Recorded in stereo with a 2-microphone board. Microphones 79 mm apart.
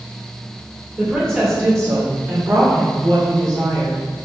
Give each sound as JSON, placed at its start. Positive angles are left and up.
{"t": 1.0, "sound": "a woman speaking", "side_deg": -25, "distance_m": 2.0}